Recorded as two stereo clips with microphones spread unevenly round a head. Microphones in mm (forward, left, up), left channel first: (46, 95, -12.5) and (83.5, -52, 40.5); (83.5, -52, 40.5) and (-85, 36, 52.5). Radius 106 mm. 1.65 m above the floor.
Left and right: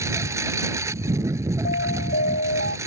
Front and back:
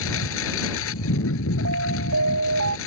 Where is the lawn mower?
10° right.